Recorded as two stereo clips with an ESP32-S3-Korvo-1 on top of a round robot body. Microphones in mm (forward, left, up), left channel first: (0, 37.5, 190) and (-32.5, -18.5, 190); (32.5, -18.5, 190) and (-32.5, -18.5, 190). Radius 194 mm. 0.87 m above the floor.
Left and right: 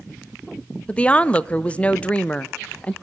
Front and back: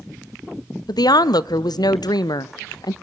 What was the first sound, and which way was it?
A woman speaking, 10° right.